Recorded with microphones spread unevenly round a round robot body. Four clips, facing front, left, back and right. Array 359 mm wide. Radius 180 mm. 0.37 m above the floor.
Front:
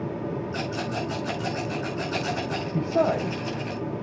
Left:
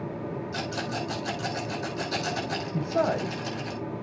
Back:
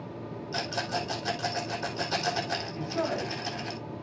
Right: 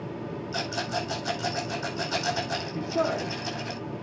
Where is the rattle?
160° left, 4.5 m.